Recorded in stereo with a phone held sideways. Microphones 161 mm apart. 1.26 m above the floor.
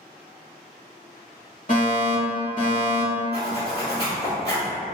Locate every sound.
1.7 s a fire alarm: 55° left (ahead or behind), 1.4 m
3.3 s a zipper: 80° left, 1.6 m